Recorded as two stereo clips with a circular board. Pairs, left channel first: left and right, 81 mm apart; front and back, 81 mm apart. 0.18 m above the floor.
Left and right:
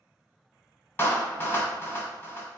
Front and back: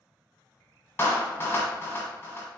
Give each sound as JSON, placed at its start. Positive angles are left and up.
{"t": 1.0, "sound": "a clap", "azimuth_deg": 45, "distance_m": 1.1}